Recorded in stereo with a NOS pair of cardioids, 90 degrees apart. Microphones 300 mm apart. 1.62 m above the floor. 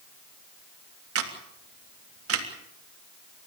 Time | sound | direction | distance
1.1 | a camera shutter | 50° right | 3.5 m